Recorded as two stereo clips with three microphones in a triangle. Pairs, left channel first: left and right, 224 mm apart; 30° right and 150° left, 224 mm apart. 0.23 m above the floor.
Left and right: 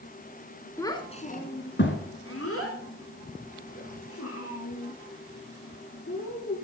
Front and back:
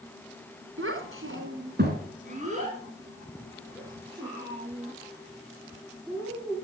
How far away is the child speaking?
About 1.6 m.